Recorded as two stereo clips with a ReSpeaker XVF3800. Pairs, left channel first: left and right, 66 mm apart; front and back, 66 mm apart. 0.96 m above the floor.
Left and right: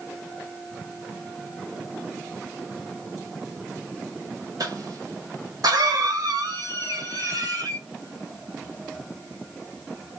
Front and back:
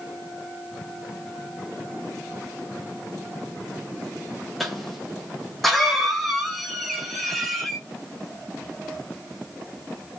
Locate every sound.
4.6 s a cough: 90° right, 1.6 m